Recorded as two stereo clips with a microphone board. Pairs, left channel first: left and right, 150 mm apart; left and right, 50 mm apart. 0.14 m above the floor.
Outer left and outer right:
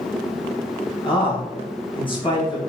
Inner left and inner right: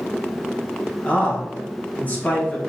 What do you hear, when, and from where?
1.0 s a man speaking: 35° left (ahead or behind), 1.7 m